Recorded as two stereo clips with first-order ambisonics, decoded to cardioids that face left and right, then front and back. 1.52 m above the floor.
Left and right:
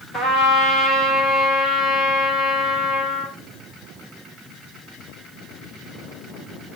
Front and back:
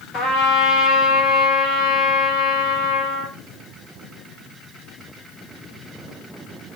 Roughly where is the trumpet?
Ahead.